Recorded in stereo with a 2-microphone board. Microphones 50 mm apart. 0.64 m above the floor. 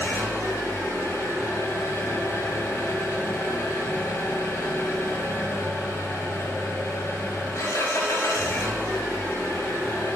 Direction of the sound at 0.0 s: 80° left.